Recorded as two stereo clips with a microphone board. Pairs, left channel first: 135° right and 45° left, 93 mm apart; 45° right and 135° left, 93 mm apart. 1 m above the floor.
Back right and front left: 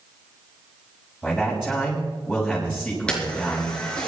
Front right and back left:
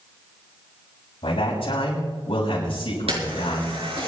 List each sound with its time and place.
1.2 s a man speaking: 60° right, 6 m
3.1 s a camera shutter: 145° left, 5 m